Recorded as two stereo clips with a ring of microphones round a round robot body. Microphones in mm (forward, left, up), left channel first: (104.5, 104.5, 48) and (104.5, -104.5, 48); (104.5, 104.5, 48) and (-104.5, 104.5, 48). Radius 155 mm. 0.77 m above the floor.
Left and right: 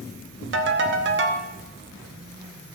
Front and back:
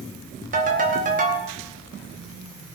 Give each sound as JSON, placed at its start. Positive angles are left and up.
{"t": 0.5, "sound": "a ringtone", "azimuth_deg": -125, "distance_m": 0.9}